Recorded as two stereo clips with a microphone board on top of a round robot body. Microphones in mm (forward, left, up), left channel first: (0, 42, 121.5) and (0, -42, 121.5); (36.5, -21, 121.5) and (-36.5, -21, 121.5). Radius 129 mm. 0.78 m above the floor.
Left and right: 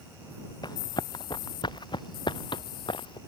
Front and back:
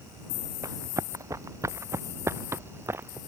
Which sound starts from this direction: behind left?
Running footsteps, at 0.6 s.